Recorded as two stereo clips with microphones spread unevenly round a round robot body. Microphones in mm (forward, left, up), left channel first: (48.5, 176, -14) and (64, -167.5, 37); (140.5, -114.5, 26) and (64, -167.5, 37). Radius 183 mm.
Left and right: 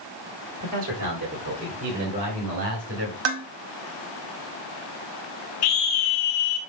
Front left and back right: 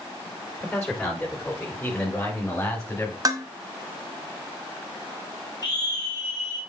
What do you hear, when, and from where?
0.6 s a man speaking: 50° right, 5 m; by 3.1 s 30° right, 3.5 m
3.2 s dishes clattering: 90° right, 1.1 m
5.6 s a scream: 100° left, 2.5 m